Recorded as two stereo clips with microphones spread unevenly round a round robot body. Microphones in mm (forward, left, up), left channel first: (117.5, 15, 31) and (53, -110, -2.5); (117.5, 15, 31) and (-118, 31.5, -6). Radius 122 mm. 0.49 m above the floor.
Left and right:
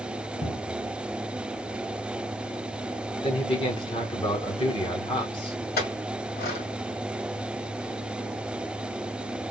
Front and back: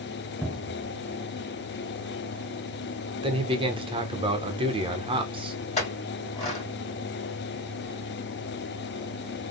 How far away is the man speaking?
About 1.2 m.